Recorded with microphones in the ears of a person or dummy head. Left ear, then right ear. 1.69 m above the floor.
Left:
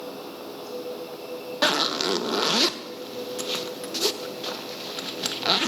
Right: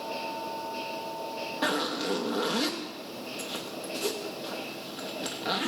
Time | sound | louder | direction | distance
1.6 | a zipper | left 7 dB | 35° left (ahead or behind) | 0.6 m